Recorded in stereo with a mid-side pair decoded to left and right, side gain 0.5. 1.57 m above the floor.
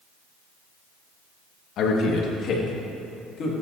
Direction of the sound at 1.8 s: 65° left.